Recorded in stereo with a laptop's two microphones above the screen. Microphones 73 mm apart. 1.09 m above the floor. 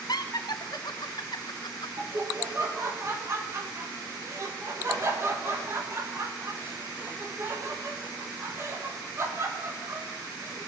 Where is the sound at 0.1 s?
60° left (ahead or behind), 0.9 m.